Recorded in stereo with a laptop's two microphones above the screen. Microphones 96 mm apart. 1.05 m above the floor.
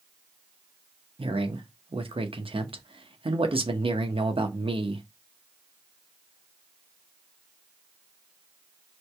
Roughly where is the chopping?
I don't hear chopping.